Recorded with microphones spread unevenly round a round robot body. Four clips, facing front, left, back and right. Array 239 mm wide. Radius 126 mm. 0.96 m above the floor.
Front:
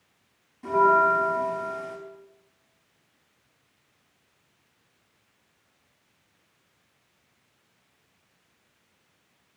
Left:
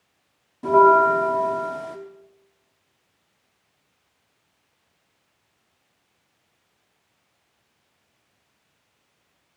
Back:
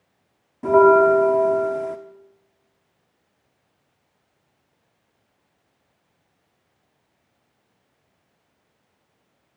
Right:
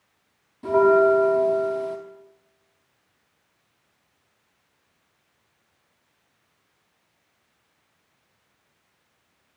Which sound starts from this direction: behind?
A bell, at 0.6 s.